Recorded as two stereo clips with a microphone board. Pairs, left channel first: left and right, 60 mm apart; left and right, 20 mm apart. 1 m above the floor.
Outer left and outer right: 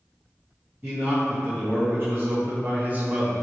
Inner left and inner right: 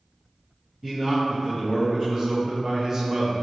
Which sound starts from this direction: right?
A man speaking, at 0.8 s.